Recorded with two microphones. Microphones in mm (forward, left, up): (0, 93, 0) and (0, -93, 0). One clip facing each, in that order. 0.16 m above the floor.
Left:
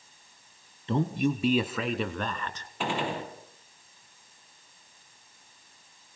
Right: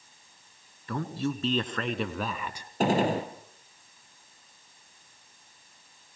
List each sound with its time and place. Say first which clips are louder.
0.9 s a man speaking: left 4 dB; 25° left (ahead or behind), 1.8 m; by 2.7 s 10° right (ahead or behind), 2 m
2.8 s a gunshot: right 7 dB; 40° right (ahead or behind), 3 m